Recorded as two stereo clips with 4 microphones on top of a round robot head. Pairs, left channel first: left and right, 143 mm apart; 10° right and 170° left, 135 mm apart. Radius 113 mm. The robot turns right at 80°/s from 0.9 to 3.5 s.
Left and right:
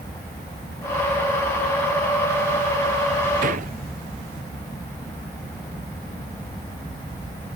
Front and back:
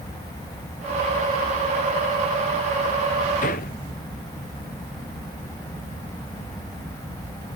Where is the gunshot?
55° right; by 3.8 s 45° right.